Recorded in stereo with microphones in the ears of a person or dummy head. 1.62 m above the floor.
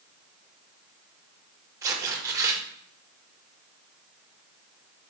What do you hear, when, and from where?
1.8 s tearing paper: 20° right (ahead or behind), 0.8 m